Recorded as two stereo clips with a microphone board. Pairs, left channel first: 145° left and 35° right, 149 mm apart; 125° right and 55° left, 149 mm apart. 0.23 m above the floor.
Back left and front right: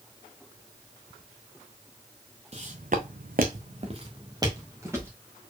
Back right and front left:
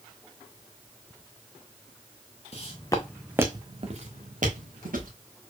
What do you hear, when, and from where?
2.5 s footsteps: 75° right, 1.2 m; by 5.1 s 40° left, 2.5 m